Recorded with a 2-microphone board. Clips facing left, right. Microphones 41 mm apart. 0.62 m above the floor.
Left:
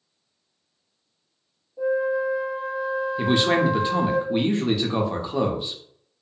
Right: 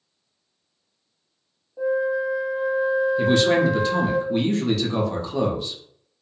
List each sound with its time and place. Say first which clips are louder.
1.8 s a flute: even; 75° right (ahead or behind), 1.2 m
3.2 s a man speaking: even; 20° left (ahead or behind), 0.5 m